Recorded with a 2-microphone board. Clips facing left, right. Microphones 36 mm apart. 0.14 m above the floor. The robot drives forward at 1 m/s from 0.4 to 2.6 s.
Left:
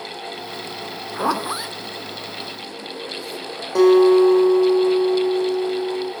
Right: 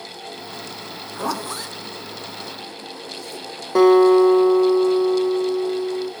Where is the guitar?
25° right (ahead or behind), 3 m.